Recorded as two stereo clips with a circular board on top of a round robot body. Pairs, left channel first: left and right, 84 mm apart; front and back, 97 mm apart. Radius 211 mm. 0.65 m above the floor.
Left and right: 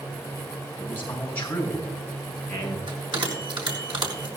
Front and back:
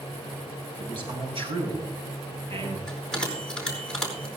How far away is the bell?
About 4.5 m.